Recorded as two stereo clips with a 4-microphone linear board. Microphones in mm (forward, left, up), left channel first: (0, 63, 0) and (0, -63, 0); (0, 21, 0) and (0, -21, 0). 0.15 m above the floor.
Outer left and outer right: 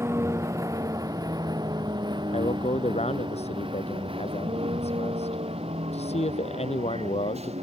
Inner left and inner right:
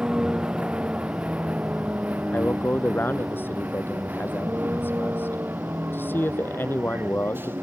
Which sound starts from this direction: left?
A man speaking, at 2.3 s.